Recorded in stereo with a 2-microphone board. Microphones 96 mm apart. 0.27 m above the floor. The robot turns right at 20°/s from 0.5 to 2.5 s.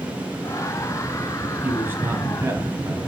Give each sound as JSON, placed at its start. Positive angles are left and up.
{"t": 1.6, "sound": "a man speaking", "side_deg": -20, "distance_m": 2.5}